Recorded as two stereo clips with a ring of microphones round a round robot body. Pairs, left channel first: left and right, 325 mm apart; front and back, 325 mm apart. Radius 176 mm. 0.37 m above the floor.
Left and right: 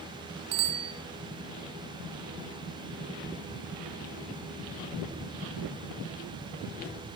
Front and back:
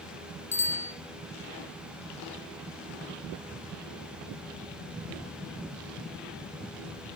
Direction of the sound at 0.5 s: 70° right.